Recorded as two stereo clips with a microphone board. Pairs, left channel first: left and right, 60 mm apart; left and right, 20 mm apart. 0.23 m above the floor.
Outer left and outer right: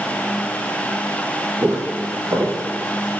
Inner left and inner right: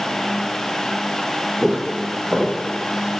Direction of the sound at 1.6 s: 60° right (ahead or behind).